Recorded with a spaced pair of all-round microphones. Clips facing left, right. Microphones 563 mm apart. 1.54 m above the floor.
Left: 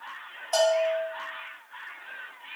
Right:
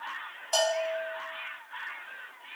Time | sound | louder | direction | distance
0.5 | a bell | left 5 dB | 35° right (ahead or behind) | 1.1 m